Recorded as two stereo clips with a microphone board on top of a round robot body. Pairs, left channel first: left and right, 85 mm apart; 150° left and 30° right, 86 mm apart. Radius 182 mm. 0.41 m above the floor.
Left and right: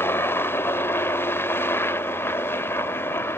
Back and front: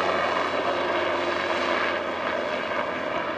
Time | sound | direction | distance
0.0 | a helicopter | 65° left | ?